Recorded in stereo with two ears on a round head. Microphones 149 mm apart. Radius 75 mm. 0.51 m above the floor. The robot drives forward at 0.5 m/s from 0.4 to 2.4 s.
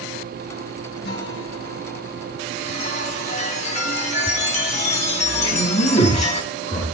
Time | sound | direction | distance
1.0 | a guitar | 70° left (ahead or behind) | 4 m
2.6 | a chime | 45° left (ahead or behind) | 3 m
5.4 | a man speaking | 45° left (ahead or behind) | 5 m